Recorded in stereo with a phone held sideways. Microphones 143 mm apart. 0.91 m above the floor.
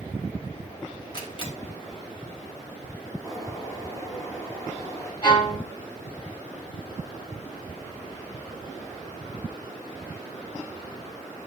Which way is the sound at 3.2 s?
25° left (ahead or behind).